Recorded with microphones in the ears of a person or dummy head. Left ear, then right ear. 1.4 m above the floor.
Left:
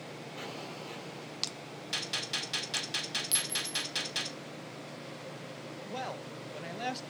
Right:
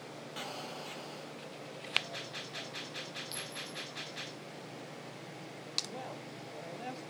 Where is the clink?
30° left (ahead or behind), 0.6 m.